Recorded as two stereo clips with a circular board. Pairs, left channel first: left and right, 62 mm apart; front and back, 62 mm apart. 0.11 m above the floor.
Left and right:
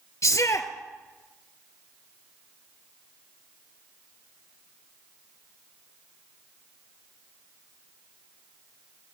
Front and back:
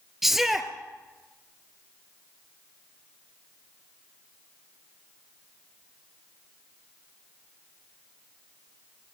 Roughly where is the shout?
Left.